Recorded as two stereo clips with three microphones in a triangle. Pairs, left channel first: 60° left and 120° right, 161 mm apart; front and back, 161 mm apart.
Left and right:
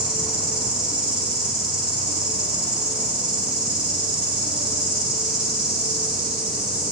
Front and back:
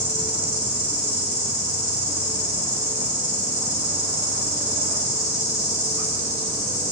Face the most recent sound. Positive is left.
turn(degrees=-40)